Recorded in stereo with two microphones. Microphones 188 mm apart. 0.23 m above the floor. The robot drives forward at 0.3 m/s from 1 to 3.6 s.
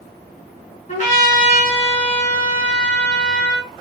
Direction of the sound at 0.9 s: 45° left (ahead or behind).